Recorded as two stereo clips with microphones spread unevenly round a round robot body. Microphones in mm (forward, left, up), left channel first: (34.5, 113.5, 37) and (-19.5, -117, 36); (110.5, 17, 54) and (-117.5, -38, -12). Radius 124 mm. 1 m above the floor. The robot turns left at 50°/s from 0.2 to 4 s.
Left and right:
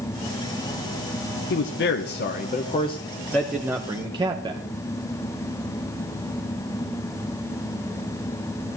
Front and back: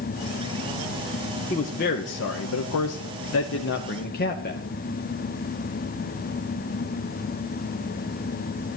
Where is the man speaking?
85° left, 0.9 m; by 4.6 s 40° right, 0.9 m.